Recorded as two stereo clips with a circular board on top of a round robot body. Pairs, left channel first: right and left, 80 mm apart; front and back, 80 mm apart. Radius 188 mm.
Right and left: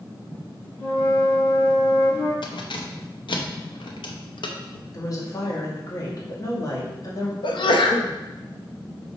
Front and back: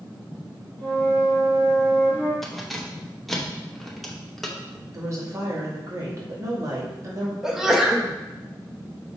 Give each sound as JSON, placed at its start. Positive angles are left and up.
{"t": 0.8, "sound": "a flute", "azimuth_deg": -85, "distance_m": 3.0}
{"t": 2.4, "sound": "keys jangling", "azimuth_deg": -85, "distance_m": 0.9}
{"t": 4.9, "sound": "a woman speaking", "azimuth_deg": -130, "distance_m": 2.0}
{"t": 7.4, "sound": "a sneeze", "azimuth_deg": -95, "distance_m": 1.0}